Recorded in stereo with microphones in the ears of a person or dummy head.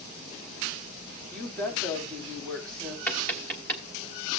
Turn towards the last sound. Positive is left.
turn(degrees=10)  # may be behind; listen again after turning